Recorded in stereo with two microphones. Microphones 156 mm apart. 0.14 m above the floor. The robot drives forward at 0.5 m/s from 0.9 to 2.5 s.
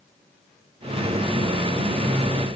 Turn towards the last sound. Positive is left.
No sound to turn to.